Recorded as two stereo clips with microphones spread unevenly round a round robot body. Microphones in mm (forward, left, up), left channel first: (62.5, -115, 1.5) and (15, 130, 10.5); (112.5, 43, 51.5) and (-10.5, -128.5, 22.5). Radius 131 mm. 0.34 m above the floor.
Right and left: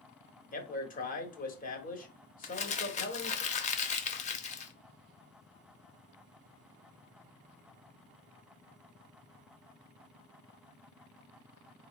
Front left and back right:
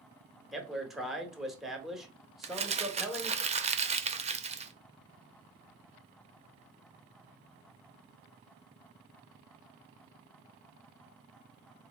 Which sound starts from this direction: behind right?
Crumpling, at 2.4 s.